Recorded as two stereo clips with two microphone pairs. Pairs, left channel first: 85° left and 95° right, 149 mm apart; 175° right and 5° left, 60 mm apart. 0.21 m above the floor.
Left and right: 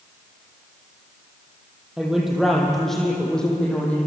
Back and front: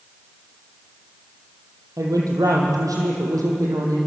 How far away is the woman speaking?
About 6.5 m.